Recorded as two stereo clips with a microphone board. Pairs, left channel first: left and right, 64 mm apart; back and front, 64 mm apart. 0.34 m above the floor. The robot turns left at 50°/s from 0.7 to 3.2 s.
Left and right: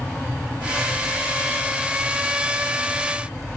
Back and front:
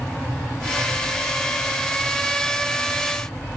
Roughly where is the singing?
I don't hear singing.